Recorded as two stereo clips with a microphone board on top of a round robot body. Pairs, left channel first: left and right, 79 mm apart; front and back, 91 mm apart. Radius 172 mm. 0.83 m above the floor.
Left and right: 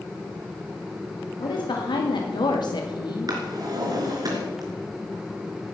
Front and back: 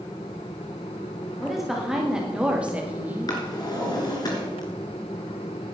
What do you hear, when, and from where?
1.4 s a woman speaking: 90° left, 2.5 m; by 3.4 s 115° left, 1.8 m
3.3 s a drawer: 50° right, 3 m